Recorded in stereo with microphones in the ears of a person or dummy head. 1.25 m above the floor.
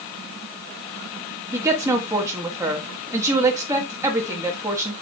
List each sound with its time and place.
1.5 s a woman speaking: 15° right (ahead or behind), 1.5 m